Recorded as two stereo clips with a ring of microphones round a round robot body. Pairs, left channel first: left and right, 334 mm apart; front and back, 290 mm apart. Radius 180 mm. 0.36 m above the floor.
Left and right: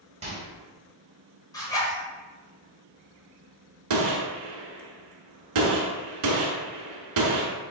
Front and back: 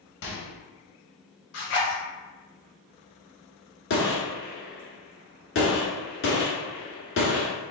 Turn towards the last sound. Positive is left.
turn(degrees=-60)